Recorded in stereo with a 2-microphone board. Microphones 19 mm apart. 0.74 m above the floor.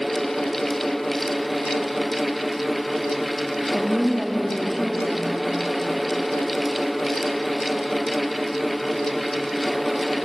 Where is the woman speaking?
Centre (ahead or behind), 1.0 m.